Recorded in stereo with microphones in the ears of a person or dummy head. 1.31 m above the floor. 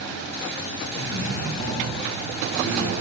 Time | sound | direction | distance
0.9 | a man speaking | 50° left (ahead or behind) | 3 m